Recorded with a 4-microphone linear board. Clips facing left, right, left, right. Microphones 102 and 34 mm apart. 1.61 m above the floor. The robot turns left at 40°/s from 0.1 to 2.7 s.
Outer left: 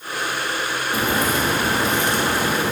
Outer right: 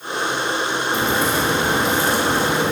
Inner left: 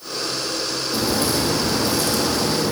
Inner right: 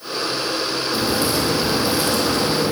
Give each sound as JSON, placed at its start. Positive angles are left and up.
{"t": 0.9, "sound": "a crack", "side_deg": 5, "distance_m": 3.5}